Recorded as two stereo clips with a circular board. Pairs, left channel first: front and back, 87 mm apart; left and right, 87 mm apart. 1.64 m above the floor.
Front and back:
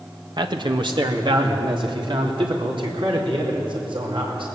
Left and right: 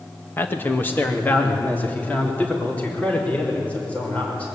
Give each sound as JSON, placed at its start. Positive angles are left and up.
{"t": 0.4, "sound": "a man speaking", "azimuth_deg": 155, "distance_m": 1.5}